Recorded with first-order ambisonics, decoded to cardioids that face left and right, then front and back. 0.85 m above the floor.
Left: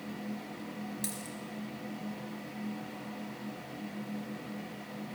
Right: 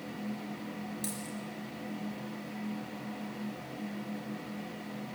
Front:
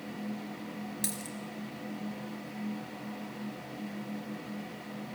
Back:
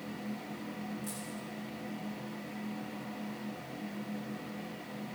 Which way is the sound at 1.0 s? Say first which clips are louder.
Right 1 dB, front 3 dB; 5° left.